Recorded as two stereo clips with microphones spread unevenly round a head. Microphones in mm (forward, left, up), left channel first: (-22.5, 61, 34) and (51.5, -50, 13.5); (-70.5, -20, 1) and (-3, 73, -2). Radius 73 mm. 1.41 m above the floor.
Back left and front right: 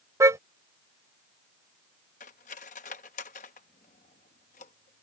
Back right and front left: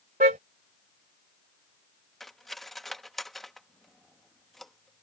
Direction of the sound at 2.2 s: 145° left.